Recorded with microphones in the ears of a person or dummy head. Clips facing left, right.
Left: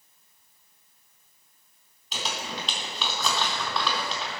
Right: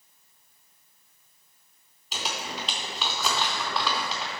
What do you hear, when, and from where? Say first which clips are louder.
2.1 s crumpling: even; 5° right (ahead or behind), 3.5 m